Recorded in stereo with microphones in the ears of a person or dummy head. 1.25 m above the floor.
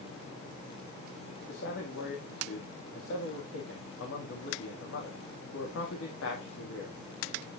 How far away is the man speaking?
About 2.0 m.